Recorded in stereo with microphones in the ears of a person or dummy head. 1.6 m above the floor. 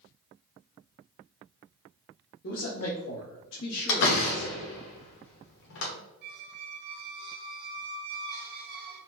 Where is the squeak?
55° right (ahead or behind), 1.0 m.